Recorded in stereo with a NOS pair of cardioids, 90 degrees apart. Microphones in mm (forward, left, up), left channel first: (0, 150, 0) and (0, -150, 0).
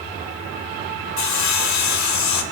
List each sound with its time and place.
1.2 s sawing: 65° left, 4.5 m